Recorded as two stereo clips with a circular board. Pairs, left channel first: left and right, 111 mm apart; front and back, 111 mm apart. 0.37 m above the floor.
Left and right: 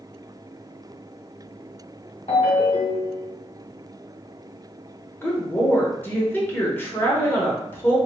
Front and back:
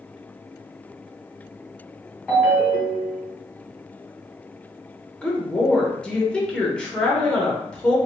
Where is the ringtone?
80° left, 2.0 m.